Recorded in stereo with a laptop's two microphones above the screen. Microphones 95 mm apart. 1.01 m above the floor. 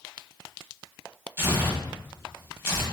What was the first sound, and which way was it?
Tearing paper, 25° right (ahead or behind).